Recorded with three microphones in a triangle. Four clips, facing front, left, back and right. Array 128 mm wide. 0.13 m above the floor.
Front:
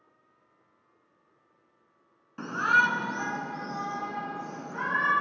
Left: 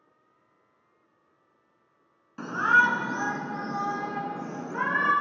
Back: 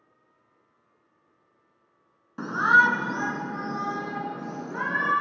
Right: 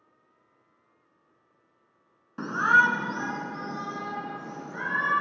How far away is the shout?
About 1.2 m.